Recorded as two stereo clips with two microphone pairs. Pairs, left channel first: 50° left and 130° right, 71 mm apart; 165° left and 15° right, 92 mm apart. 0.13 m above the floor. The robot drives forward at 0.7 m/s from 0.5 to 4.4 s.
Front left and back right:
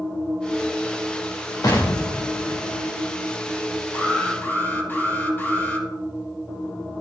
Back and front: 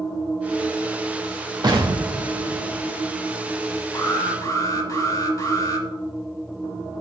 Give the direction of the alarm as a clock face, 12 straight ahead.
8 o'clock.